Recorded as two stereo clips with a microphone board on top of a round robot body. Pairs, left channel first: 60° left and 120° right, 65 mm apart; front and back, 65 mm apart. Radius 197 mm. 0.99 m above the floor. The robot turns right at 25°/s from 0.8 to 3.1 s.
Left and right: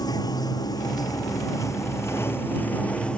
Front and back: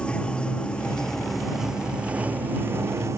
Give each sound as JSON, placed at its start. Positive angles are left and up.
{"t": 0.0, "sound": "running water", "azimuth_deg": 75}